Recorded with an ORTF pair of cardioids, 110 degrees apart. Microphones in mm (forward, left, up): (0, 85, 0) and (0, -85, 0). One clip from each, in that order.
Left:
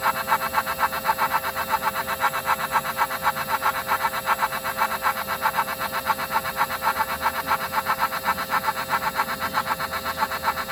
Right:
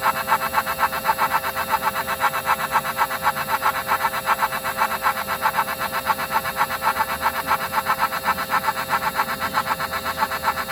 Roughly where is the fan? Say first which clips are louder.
Right 2 dB; ahead.